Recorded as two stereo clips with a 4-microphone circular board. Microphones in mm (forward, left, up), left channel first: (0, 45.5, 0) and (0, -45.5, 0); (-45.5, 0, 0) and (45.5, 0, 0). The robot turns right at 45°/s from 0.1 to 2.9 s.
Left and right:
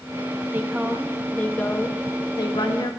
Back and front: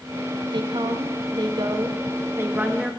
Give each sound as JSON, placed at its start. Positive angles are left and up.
{"t": 0.5, "sound": "a woman speaking", "azimuth_deg": -25, "distance_m": 0.7}